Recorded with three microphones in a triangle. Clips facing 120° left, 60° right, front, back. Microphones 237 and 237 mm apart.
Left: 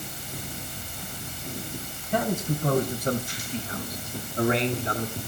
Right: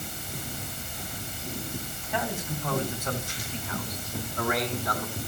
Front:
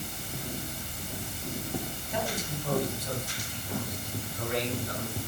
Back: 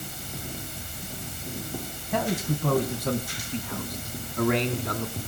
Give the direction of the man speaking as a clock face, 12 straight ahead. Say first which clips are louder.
Left 6 dB, back 7 dB; 7 o'clock.